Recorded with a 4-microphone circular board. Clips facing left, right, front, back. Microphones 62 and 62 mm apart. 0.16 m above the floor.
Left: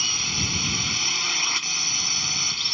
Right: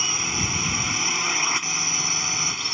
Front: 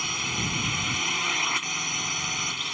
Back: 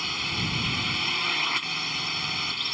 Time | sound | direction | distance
0.0 | a drone | 75° right | ?